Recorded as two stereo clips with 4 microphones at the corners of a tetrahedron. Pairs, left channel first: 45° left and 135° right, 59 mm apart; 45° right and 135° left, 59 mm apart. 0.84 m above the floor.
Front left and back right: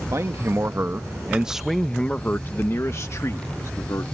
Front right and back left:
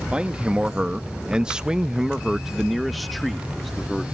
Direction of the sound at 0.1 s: 155° right.